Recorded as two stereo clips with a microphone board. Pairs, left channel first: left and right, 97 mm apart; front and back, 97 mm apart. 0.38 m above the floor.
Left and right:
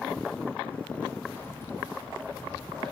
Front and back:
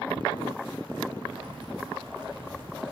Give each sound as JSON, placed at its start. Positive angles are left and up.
{"t": 1.4, "sound": "keys jangling", "azimuth_deg": 155, "distance_m": 10.0}